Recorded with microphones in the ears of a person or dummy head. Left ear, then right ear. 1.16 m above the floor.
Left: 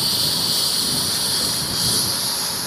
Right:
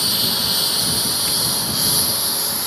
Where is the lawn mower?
5° right (ahead or behind); by 2.7 s 15° right (ahead or behind).